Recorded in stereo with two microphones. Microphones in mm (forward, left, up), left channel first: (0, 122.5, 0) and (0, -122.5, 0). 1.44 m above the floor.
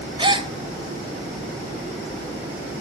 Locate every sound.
0.2 s a gasp: 20° right (ahead or behind), 1.1 m